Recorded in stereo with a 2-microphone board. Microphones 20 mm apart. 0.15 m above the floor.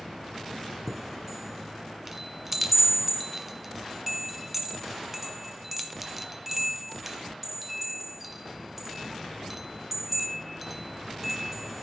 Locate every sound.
0.9 s a chime: 10° right (ahead or behind), 1.5 m